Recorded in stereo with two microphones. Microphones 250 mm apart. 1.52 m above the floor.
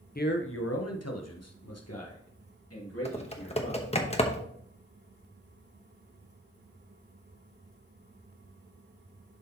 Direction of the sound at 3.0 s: 25° left (ahead or behind).